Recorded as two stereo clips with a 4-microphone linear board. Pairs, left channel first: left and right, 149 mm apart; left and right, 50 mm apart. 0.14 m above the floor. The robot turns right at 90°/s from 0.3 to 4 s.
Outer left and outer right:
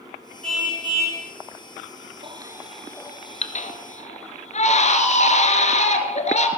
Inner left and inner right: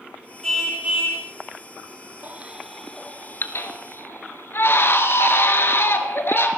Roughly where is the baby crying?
Right.